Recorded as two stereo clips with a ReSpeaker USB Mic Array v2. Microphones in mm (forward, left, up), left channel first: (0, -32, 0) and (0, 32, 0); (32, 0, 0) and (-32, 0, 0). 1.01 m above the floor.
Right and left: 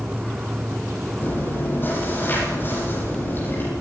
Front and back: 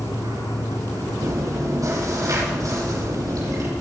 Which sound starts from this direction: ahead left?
An insect, at 0.0 s.